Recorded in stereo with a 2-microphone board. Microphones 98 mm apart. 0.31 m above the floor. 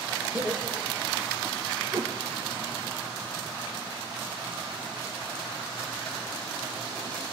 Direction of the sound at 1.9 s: 50° right (ahead or behind).